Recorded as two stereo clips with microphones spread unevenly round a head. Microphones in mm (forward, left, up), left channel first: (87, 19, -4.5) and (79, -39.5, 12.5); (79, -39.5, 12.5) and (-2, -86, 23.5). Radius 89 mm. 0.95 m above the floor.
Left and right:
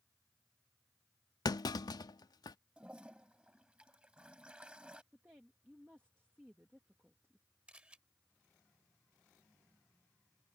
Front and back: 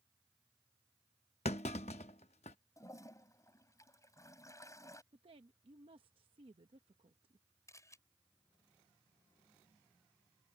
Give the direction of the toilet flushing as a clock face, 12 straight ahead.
1 o'clock.